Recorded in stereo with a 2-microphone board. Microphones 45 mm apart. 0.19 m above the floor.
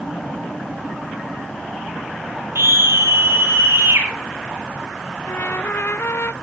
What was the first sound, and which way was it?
A scream, 75° right (ahead or behind).